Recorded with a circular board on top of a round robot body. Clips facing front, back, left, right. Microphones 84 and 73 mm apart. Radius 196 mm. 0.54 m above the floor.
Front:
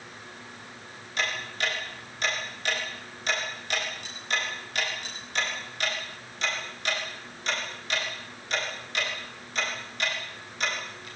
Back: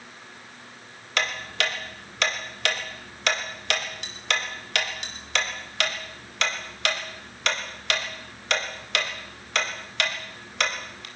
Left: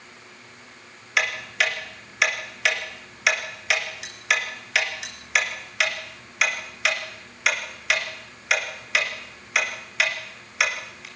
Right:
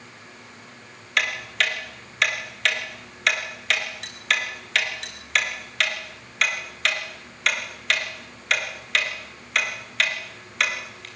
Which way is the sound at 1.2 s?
175° left.